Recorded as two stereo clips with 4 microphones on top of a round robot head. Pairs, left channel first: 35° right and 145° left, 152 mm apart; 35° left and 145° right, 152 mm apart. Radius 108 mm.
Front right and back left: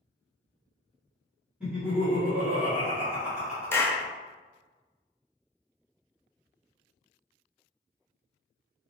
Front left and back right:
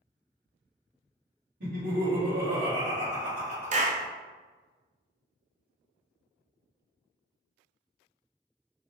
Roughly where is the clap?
Right.